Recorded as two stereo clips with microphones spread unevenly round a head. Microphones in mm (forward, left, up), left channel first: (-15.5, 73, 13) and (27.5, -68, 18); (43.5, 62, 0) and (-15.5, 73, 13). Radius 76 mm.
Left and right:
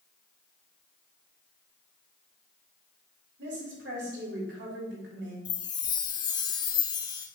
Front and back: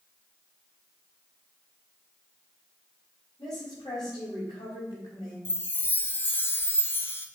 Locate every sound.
3.4 s a woman speaking: 65° right, 3.5 m
5.5 s a chime: 45° left, 0.9 m